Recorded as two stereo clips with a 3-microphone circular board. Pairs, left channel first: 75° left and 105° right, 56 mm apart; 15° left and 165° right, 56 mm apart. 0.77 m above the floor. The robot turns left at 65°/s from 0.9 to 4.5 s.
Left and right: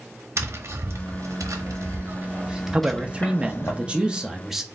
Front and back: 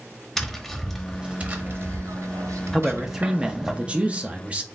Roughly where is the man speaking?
Ahead right.